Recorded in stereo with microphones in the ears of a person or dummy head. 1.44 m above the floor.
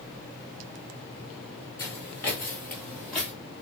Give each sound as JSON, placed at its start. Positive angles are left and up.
{"t": 1.8, "sound": "footsteps", "side_deg": 20, "distance_m": 1.6}